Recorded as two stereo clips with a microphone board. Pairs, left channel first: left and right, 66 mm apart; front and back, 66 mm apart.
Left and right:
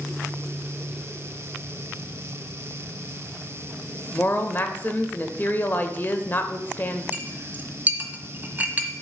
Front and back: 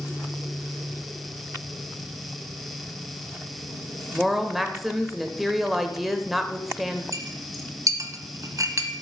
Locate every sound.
4.1 s a woman speaking: 95° left, 0.9 m
7.1 s a clink: 150° right, 1.2 m